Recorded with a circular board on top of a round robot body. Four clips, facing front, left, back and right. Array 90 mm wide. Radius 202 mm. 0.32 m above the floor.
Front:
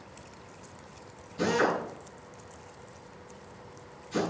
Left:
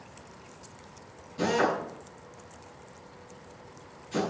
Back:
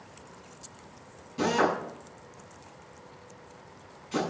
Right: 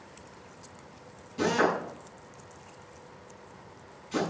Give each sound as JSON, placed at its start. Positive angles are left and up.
{"t": 1.4, "sound": "a drill", "azimuth_deg": -155, "distance_m": 6.5}